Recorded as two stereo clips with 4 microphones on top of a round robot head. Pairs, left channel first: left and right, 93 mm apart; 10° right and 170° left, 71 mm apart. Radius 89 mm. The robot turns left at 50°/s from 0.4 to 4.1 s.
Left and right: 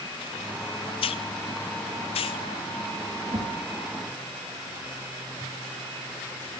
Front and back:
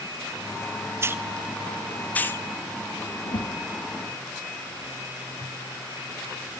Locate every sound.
1.0 s a hiss: 115° left, 0.7 m; by 2.5 s 45° left, 0.7 m
3.2 s a whoosh: 35° right, 6.5 m; by 3.6 s 50° right, 6.5 m